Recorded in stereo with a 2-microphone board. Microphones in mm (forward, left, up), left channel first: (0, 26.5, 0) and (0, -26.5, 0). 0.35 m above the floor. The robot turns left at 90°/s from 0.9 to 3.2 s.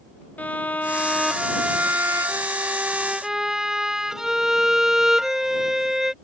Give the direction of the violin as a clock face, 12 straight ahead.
11 o'clock.